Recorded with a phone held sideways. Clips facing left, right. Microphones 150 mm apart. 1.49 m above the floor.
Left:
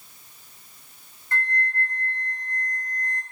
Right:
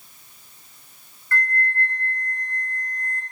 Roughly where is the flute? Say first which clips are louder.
Right 3 dB; left.